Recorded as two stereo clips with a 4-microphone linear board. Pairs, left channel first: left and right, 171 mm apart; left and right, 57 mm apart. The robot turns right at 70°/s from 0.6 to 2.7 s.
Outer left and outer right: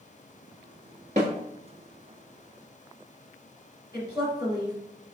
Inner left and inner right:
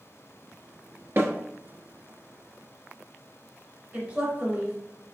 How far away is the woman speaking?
About 2 m.